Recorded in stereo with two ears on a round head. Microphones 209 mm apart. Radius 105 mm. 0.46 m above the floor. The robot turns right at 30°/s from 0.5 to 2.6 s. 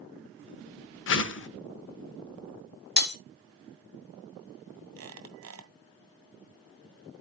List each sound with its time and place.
1.1 s a whoosh: 55° left (ahead or behind), 0.7 m; by 1.5 s 50° left (ahead or behind), 0.7 m
3.0 s breaking glass: 45° left (ahead or behind), 1.1 m
5.0 s a squeak: 65° right (ahead or behind), 1.5 m